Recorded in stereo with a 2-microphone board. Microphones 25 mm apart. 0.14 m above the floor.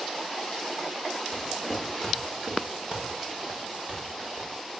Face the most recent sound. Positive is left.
turn(degrees=-55)  # may be behind; listen again after turning